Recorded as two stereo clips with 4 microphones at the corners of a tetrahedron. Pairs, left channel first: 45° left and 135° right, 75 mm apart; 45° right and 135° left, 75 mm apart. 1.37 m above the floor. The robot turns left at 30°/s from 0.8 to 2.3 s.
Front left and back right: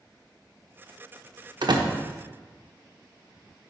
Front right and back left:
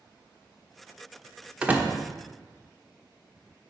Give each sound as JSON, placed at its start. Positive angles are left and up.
{"t": 1.6, "sound": "a door slam", "azimuth_deg": -150, "distance_m": 0.9}